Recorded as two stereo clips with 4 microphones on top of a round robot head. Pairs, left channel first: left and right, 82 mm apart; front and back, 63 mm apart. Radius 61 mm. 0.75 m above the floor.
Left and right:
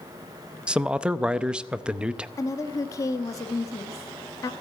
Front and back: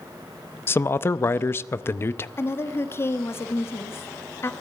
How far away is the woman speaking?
About 1.3 m.